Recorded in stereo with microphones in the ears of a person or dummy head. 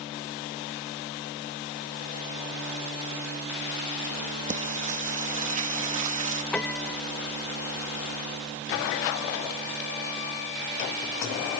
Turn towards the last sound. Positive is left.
turn(degrees=5)  # may be behind; listen again after turning